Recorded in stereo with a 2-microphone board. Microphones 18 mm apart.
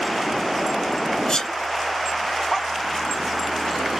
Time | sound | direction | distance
1.3 | a sneeze | 30° left (ahead or behind) | 1.5 m